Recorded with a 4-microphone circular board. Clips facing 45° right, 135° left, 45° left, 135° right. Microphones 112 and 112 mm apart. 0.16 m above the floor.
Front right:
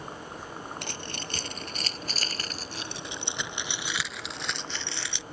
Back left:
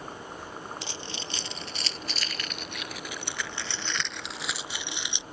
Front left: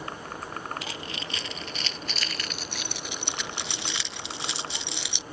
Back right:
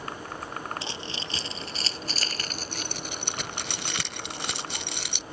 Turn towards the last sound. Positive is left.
turn(degrees=-160)